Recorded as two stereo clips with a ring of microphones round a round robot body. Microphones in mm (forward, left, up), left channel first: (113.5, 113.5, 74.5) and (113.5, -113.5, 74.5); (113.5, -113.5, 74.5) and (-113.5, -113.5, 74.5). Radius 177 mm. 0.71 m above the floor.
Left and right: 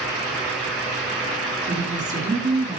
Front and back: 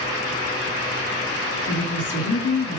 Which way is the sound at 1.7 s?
35° right.